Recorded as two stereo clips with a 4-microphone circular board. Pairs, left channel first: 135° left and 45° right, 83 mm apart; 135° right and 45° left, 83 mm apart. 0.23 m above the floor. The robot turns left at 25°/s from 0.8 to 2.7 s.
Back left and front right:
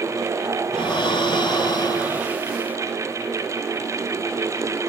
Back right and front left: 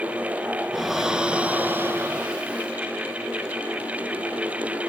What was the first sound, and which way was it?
Breathing, 135° left.